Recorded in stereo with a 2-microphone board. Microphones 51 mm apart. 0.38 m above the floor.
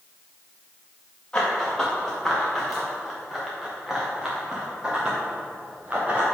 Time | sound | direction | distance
1.3 | running footsteps | 15° left (ahead or behind) | 3.5 m